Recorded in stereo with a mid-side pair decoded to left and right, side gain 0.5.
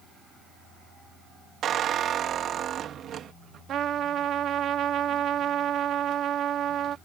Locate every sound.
1.6 s a squeak: 55° right
3.7 s a trumpet: 55° right